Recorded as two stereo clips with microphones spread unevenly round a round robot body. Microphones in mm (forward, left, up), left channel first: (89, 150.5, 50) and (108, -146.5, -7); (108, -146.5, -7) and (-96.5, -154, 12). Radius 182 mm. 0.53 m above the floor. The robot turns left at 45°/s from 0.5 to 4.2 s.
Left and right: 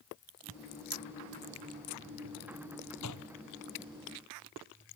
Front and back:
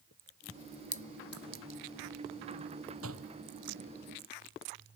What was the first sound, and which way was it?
A clink, 125° right.